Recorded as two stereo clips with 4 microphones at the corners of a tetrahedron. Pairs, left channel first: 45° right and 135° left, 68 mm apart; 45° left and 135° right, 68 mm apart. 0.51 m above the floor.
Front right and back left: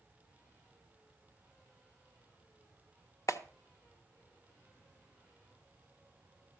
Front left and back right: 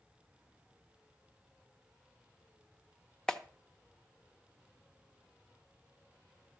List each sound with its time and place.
3.3 s a clap: 30° right, 0.8 m